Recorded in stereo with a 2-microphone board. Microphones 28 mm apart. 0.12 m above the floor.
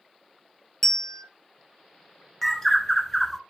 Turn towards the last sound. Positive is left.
turn(degrees=10)  # may be behind; listen again after turning